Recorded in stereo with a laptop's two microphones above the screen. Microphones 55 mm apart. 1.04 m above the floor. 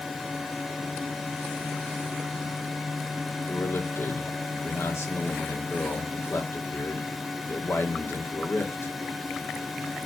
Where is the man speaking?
55° left (ahead or behind), 2.5 m.